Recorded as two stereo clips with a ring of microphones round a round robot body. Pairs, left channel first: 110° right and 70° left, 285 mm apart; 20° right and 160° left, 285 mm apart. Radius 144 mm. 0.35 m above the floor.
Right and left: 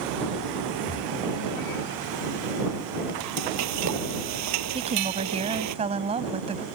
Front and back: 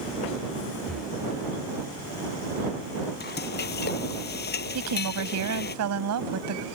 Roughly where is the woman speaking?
Behind left.